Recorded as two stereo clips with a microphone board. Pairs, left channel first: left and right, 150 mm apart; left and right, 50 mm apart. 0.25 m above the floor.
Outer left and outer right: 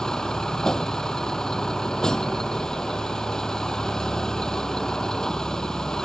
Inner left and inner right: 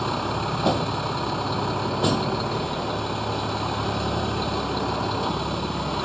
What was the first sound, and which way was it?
A vehicle, 5° left (ahead or behind).